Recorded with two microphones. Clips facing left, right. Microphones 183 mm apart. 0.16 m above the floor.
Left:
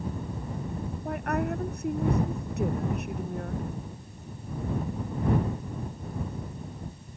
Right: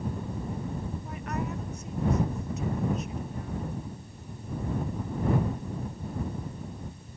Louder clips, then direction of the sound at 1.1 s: Left 8 dB; 65° left (ahead or behind).